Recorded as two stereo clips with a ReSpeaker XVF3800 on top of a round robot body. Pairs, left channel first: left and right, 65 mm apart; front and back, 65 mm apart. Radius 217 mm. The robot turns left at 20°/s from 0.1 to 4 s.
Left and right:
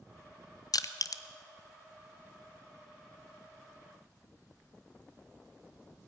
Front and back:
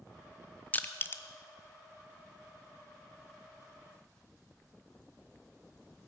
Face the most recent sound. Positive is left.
turn(degrees=0)